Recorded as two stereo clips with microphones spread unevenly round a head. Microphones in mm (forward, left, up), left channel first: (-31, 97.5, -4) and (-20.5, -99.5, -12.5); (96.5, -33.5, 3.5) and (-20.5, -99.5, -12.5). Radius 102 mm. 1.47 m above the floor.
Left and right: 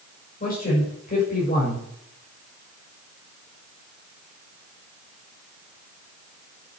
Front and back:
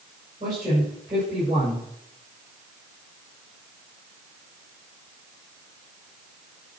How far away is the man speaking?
About 6.5 m.